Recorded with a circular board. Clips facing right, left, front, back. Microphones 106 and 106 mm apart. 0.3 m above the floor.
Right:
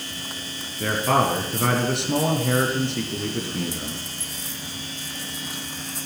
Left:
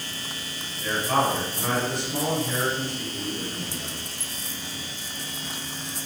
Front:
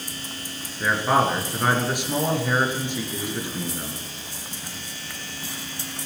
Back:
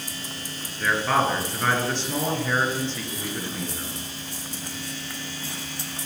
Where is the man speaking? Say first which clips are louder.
Right 3 dB, front 2 dB; 75° right, 4 m.